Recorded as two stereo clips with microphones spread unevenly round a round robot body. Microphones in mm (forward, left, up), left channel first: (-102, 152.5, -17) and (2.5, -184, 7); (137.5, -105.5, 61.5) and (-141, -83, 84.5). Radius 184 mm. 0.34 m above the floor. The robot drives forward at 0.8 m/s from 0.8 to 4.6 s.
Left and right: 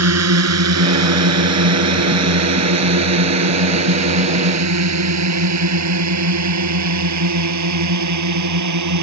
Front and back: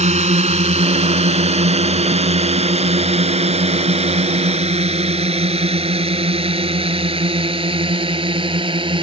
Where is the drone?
120° right; by 9.0 s 110° right.